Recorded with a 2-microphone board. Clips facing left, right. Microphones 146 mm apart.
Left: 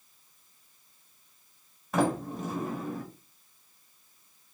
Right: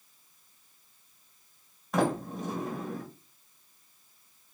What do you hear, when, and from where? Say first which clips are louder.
1.9 s a sliding door: left 1 dB; 5° left (ahead or behind), 1.3 m